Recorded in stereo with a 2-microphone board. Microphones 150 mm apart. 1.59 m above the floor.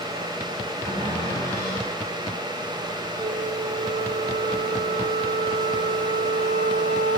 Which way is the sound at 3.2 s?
70° right (ahead or behind).